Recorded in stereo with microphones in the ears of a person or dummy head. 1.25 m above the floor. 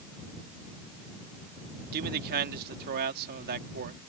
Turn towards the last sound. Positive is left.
turn(degrees=-50)  # may be behind; listen again after turning